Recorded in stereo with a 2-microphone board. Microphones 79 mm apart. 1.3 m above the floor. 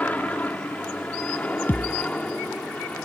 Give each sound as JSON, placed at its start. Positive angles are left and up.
{"t": 0.0, "sound": "an aircraft", "side_deg": 20}
{"t": 1.7, "sound": "a thud", "side_deg": 25}